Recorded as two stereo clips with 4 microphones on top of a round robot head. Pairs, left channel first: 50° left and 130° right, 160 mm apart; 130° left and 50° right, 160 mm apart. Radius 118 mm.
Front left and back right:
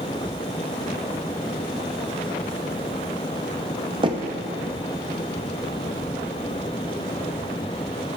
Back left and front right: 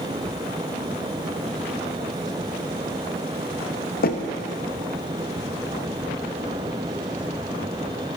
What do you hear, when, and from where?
4.0 s knocking: 165° left, 0.8 m